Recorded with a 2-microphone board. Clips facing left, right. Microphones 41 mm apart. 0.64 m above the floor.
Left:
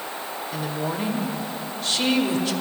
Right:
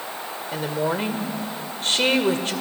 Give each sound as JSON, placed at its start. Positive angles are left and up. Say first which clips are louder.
{"t": 0.5, "sound": "a woman speaking", "louder": "right 5 dB", "side_deg": -45, "distance_m": 2.0}